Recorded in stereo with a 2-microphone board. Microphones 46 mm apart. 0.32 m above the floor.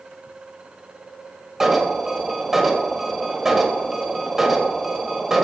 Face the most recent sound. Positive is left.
turn(degrees=-5)  # may be behind; listen again after turning